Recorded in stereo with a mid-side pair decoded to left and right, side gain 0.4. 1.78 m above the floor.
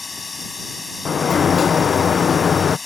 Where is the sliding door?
45° left.